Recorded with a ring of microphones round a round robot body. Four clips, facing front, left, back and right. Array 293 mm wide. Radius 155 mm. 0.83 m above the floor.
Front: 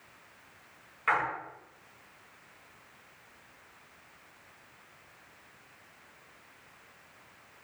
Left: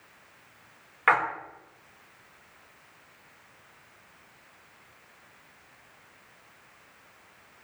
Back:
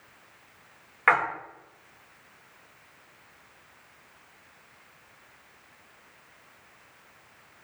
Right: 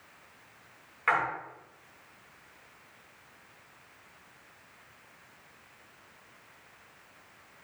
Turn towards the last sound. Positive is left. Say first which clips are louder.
# left 4 dB, back 6 dB
turn(degrees=150)